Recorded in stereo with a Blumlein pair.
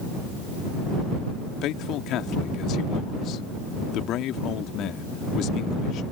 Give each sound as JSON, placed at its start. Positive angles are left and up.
{"t": 1.6, "sound": "a man speaking", "azimuth_deg": 35}